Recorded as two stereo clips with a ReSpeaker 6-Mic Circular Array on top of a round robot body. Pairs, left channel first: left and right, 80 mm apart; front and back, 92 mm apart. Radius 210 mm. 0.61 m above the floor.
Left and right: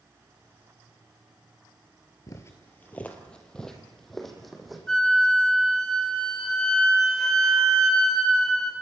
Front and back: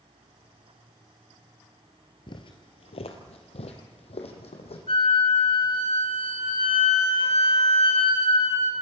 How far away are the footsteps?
About 1.0 m.